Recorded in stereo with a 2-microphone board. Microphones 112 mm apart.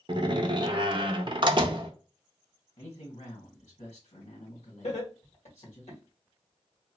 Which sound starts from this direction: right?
A door slam, at 0.1 s.